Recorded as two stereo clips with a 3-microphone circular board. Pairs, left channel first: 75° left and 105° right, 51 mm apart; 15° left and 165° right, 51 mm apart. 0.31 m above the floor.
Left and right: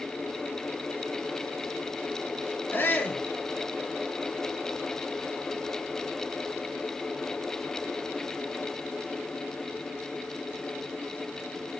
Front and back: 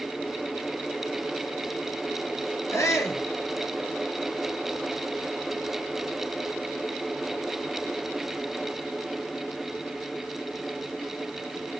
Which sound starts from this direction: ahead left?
A shout, at 2.7 s.